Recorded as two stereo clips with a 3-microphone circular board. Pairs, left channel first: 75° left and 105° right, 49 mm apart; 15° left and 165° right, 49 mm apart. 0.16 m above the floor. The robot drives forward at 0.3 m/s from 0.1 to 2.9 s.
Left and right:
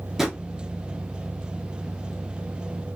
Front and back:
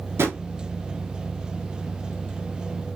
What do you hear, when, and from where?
0.2 s a drawer: 170° left, 0.9 m